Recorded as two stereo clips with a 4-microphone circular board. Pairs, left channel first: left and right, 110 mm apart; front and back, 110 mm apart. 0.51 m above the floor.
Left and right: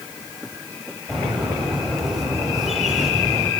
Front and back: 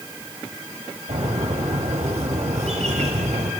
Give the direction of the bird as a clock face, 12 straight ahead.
6 o'clock.